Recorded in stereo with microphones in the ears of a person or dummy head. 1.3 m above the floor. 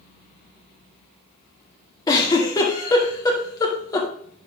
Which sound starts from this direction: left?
A giggle, at 2.1 s.